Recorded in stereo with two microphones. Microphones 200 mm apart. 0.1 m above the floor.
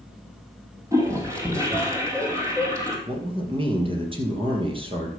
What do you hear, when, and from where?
0.9 s a toilet flushing: 15° right (ahead or behind), 2.5 m
3.1 s a man speaking: 25° right (ahead or behind), 3 m